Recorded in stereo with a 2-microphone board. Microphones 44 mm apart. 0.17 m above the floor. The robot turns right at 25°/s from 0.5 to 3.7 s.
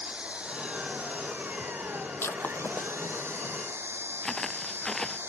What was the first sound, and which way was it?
An engine running, 145° right.